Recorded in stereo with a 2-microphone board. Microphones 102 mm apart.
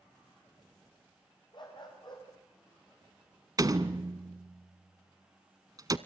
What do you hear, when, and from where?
1.5 s a dog barking: 50° left (ahead or behind), 8 m
3.6 s a door slam: 40° right (ahead or behind), 0.9 m